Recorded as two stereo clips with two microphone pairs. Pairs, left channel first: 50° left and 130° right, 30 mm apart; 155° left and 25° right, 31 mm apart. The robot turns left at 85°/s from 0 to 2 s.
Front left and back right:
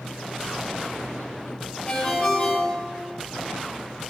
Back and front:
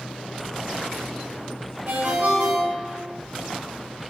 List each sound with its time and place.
1.9 s a ringtone: 5° left, 3 m; by 3.1 s 5° right, 3 m